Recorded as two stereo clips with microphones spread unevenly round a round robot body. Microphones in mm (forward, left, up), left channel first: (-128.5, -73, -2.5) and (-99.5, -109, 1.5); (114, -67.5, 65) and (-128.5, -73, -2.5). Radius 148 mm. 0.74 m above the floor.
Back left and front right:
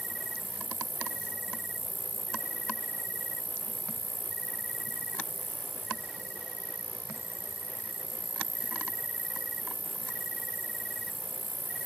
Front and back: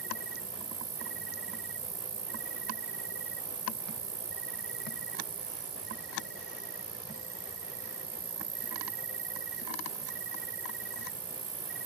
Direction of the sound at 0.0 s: 140° right.